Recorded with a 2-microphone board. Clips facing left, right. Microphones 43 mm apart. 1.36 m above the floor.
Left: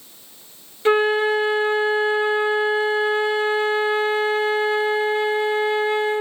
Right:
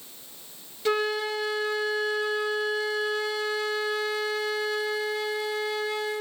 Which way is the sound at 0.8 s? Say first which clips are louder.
Left 9 dB; 35° left (ahead or behind).